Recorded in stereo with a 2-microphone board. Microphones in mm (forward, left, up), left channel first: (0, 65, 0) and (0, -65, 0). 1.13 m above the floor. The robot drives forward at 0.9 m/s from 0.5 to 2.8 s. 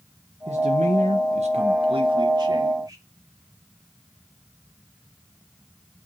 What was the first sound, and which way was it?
A man speaking, 65° right (ahead or behind).